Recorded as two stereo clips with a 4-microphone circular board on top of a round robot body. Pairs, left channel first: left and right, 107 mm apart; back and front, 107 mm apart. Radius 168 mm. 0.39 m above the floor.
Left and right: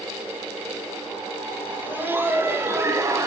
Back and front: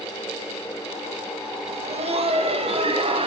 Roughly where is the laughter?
Ahead.